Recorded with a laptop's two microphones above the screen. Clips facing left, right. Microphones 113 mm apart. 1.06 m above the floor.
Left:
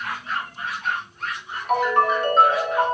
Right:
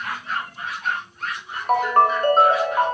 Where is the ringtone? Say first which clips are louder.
Right 2 dB; 40° right (ahead or behind), 0.6 m.